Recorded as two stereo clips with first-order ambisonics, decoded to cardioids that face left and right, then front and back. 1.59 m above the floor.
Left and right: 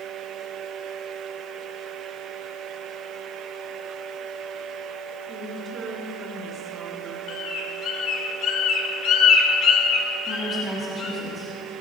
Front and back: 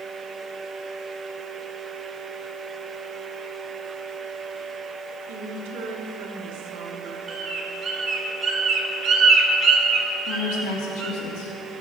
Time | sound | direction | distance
5.3 | a woman speaking | 165° right | 1.9 m
7.3 | a bird | 125° left | 1.6 m
10.3 | a woman speaking | 20° left | 2.5 m